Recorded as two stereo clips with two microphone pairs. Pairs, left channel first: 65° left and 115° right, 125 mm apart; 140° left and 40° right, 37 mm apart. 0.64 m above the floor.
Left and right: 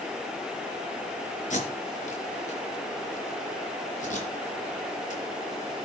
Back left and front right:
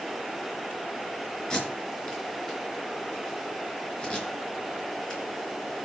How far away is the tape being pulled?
About 4 m.